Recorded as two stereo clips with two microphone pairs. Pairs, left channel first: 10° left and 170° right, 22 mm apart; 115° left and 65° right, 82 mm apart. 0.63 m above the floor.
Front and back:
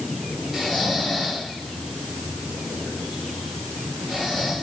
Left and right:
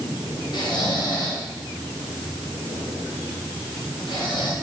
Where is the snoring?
130° left, 3 m.